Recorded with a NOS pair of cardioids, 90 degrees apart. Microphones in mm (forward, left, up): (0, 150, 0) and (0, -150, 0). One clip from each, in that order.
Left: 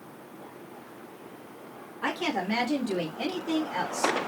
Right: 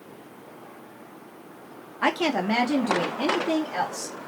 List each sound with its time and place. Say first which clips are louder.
2.0 s a woman speaking: right 6 dB; 60° right, 0.7 m; by 4.2 s 20° right, 1.6 m